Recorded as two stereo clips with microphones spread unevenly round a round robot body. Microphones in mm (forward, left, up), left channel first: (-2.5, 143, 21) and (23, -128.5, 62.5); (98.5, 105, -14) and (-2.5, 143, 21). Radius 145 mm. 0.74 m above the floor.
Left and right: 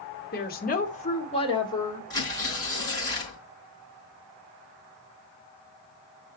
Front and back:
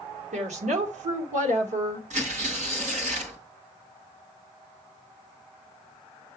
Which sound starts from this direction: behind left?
A woman speaking, at 0.3 s.